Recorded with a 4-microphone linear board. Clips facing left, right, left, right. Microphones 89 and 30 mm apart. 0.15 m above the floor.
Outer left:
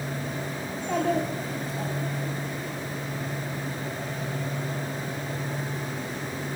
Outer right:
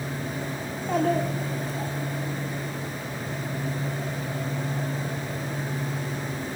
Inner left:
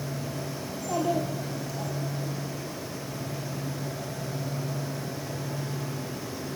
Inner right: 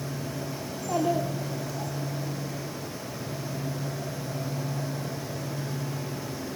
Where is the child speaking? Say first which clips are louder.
Outer right 2 dB, inner right 1 dB; 5° right (ahead or behind), 5 m; by 1.9 s centre (ahead or behind), 6.5 m.